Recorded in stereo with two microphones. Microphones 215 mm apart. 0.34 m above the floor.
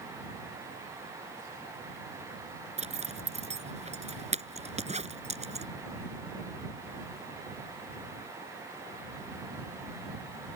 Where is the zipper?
30° right (ahead or behind).